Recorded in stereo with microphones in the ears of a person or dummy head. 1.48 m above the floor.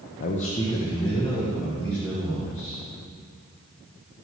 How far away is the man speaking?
About 0.7 m.